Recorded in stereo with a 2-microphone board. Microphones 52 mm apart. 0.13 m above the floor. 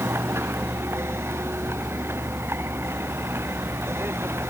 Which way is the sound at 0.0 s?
45° right (ahead or behind).